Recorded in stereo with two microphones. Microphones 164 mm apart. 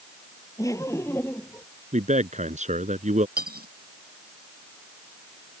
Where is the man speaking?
45° right (ahead or behind).